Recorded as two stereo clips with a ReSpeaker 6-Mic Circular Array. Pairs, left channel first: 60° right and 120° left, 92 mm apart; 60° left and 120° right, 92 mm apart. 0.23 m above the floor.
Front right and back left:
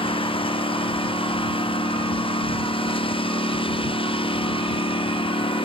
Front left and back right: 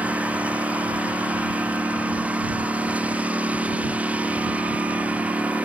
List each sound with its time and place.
0.0 s a lawn mower: 45° right